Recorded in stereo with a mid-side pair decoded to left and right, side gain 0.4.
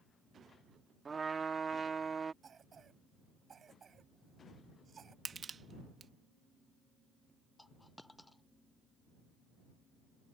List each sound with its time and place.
1.1 s a trumpet: 40° right
2.4 s a cough: 45° right
5.2 s crushing: 45° right
7.6 s a dropped coin: 15° left